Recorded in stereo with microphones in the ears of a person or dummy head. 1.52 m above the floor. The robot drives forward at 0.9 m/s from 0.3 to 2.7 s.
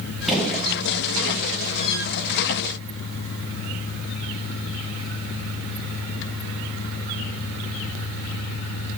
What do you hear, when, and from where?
0.3 s a gunshot: 5° left (ahead or behind), 1.3 m